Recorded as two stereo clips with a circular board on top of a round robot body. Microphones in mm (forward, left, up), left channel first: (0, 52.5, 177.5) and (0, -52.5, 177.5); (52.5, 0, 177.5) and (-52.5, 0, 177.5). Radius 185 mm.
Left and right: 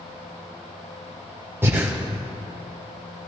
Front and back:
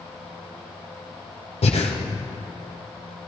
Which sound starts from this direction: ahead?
Breathing, at 1.6 s.